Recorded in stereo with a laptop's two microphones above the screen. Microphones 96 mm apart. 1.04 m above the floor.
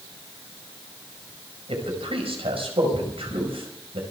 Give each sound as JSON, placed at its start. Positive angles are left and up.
{"t": 1.7, "sound": "a man speaking", "side_deg": -80, "distance_m": 5.0}